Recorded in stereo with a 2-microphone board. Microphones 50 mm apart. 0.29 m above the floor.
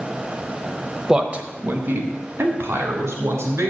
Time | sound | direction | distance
1.1 | a man speaking | 10° right (ahead or behind) | 0.9 m